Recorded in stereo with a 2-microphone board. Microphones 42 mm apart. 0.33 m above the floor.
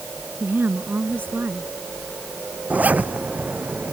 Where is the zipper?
40° right (ahead or behind).